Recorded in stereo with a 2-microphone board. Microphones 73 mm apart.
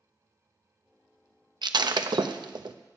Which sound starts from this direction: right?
Breaking glass, at 1.6 s.